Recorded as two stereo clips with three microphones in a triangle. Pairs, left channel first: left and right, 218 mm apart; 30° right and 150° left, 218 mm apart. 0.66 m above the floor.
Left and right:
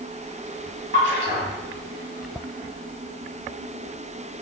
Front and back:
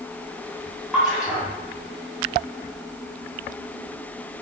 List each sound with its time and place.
0.9 s a splash: 65° left, 1.7 m